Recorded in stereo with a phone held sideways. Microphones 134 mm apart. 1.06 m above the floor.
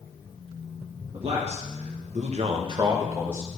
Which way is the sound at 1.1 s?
45° right (ahead or behind).